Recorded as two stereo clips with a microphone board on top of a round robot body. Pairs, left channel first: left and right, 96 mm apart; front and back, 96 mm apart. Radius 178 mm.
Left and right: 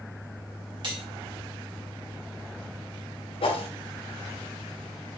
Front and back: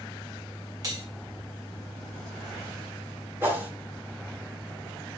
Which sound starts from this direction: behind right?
Cutlery clinking, at 0.8 s.